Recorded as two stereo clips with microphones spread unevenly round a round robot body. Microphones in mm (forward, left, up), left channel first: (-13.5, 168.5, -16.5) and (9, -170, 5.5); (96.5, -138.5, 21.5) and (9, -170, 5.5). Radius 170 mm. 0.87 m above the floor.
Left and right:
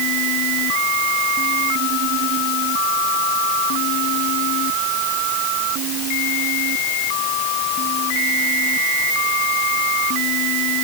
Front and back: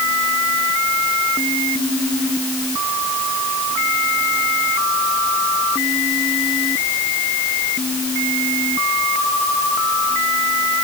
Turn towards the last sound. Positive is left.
No sound to turn to.